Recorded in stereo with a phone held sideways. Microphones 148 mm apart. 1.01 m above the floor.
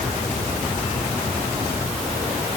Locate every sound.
Only background noise.